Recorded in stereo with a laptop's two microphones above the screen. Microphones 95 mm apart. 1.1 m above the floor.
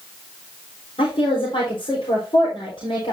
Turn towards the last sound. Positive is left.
turn(degrees=75)  # may be behind; listen again after turning